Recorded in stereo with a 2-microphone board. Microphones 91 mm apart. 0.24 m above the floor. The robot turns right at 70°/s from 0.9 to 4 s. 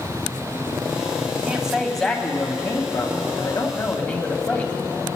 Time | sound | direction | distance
1.4 | a man speaking | 30° right | 1.4 m